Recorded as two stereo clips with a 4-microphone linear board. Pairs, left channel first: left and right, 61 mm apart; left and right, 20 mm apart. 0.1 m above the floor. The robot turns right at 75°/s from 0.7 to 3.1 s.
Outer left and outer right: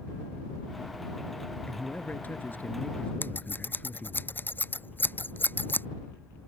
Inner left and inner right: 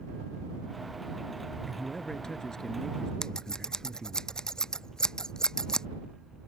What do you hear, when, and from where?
1.6 s a man speaking: 35° left; by 4.2 s 145° left
3.2 s scissors: 35° left (ahead or behind)